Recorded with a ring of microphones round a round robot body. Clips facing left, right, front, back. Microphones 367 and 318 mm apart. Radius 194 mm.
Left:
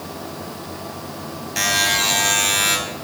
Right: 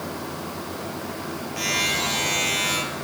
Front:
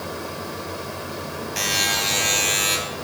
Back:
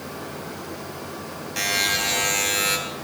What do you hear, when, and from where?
1.6 s a buzzer: 85° left, 3 m